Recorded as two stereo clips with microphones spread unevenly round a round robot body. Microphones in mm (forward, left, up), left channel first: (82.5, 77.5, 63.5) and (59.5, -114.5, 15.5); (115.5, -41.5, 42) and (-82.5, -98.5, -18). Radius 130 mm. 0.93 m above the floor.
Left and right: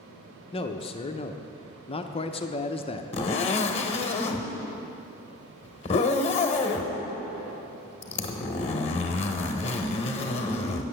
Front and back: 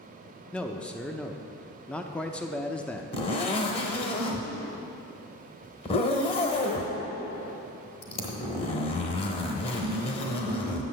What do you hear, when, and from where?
0.5 s a man speaking: 135° left, 0.7 m
3.1 s a zipper: 55° left, 0.9 m